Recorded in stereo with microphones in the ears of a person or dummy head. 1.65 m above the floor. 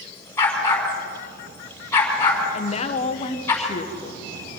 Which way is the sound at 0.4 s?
15° left (ahead or behind).